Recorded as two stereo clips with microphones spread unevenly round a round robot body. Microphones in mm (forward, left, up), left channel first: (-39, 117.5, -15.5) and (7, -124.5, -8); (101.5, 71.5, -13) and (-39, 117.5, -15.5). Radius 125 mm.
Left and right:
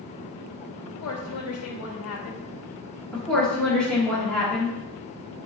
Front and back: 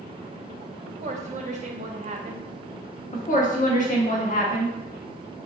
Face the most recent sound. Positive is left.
turn(degrees=15)